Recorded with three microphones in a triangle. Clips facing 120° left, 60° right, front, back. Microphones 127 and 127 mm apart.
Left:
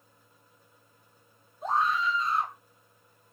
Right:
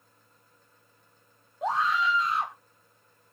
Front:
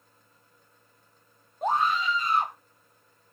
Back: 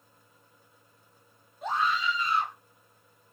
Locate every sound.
1.6 s a scream: 45° right, 1.4 m